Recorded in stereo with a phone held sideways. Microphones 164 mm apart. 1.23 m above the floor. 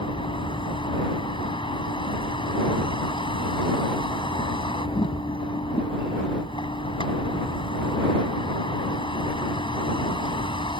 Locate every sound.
0.0 s a vehicle: 30° left (ahead or behind)